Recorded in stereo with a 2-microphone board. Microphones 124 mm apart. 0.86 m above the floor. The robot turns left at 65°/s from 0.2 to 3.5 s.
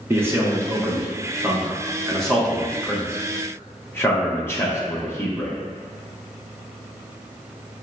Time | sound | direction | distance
0.1 | a man speaking | 15° right (ahead or behind) | 0.9 m